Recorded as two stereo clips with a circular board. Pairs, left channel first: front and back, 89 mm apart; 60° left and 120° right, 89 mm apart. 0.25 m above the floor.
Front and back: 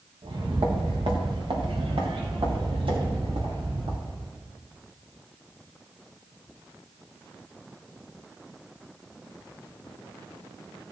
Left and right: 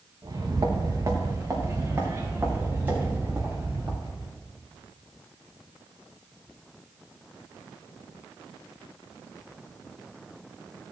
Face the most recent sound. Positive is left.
turn(degrees=160)